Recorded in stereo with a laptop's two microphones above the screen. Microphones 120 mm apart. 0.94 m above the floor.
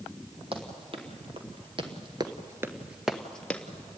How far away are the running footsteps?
About 2.5 m.